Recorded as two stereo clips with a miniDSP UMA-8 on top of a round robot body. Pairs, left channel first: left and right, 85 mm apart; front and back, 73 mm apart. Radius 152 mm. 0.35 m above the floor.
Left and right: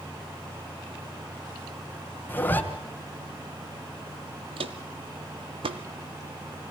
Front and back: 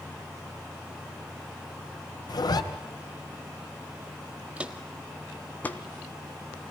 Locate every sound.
2.3 s a zipper: 20° left, 2.5 m
4.6 s footsteps: 110° right, 0.5 m; by 5.8 s 65° right, 1.1 m